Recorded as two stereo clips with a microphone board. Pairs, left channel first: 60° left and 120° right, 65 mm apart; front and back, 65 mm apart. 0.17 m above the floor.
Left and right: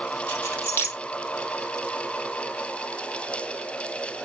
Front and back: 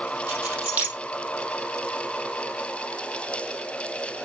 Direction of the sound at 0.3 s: 120° left.